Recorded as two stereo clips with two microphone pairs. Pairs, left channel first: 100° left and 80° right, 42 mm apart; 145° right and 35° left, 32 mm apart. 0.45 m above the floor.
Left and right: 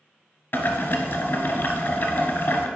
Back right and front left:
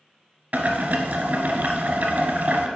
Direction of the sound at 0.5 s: 70° left.